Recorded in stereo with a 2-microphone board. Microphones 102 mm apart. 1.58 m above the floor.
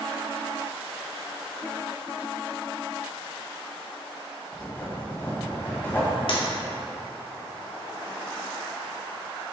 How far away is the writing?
About 1.5 m.